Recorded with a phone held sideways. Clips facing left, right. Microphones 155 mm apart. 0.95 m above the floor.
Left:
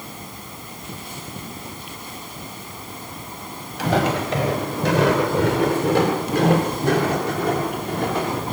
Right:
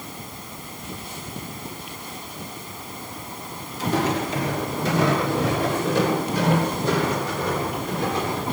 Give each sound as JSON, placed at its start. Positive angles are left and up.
{"t": 3.8, "sound": "footsteps", "side_deg": 80, "distance_m": 6.0}